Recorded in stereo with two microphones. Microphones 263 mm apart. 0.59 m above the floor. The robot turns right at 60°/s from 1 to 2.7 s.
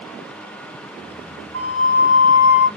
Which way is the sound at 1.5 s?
65° right.